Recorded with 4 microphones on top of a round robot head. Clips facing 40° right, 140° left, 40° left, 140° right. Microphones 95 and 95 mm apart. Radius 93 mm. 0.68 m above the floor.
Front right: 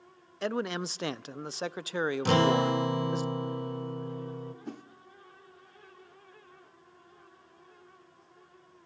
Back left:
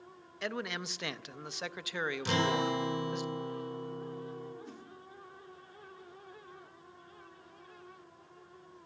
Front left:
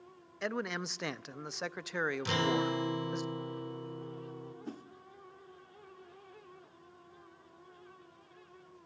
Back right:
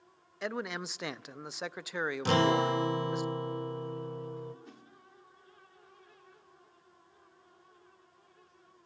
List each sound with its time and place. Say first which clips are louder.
0.4 s a man speaking: front right 6 dB, even; 55° right, 0.5 m
2.2 s a guitar: front right 6 dB, back right 7 dB; 85° right, 1.5 m
4.7 s a whoosh: front right 7 dB, front left 9 dB; 5° right, 1.0 m